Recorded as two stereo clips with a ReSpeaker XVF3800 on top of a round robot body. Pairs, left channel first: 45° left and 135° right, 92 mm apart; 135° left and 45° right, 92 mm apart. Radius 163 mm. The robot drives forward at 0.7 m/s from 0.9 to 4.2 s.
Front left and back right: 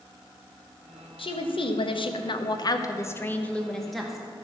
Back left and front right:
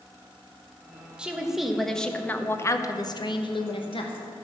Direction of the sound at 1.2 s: 35° left.